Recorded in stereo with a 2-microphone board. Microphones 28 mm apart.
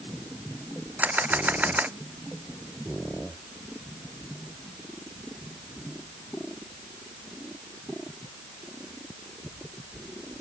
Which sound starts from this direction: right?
A camera shutter, at 1.0 s.